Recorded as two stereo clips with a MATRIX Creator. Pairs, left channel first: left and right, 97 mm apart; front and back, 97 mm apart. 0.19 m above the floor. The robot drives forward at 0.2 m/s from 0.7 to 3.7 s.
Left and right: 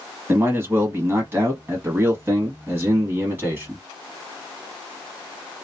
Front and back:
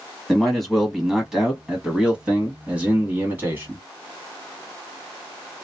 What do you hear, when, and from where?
0.3 s a man speaking: 90° right, 1.3 m; by 3.8 s 135° right, 1.5 m